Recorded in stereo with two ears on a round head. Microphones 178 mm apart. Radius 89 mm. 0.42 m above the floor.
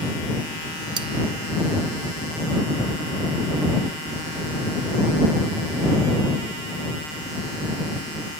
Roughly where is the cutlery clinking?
Right.